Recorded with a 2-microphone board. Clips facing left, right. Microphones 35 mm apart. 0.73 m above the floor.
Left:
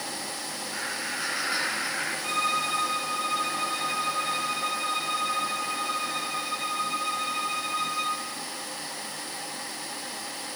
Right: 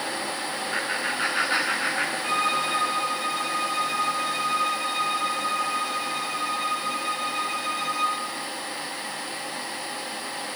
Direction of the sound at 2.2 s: Centre (ahead or behind).